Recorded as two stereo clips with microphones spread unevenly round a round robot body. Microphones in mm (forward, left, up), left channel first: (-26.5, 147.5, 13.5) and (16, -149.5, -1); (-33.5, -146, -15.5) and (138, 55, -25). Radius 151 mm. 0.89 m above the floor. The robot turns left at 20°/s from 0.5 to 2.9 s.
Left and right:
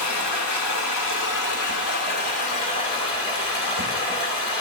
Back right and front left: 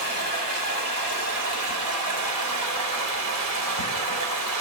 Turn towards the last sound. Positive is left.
turn(degrees=25)